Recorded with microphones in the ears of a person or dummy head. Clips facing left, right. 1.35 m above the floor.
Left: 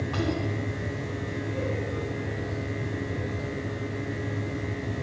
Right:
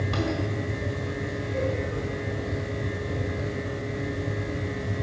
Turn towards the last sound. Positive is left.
turn(degrees=-25)  # may be behind; listen again after turning